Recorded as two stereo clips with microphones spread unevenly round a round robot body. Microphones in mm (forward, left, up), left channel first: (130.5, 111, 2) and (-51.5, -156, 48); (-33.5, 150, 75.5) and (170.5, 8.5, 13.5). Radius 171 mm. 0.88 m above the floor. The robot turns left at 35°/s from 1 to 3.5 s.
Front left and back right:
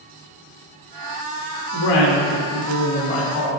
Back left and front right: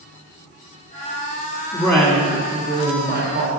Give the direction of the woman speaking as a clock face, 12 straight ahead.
10 o'clock.